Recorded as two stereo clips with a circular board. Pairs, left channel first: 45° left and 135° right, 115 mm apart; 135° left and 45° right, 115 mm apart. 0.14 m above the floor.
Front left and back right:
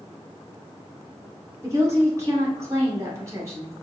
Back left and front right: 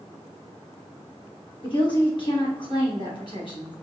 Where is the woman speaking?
170° left, 2 m.